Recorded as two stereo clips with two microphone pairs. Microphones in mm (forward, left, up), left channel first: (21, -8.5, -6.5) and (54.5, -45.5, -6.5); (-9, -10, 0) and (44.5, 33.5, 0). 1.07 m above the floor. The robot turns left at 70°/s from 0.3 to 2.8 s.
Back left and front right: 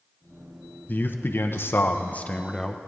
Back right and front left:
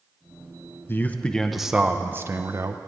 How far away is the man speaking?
About 0.5 m.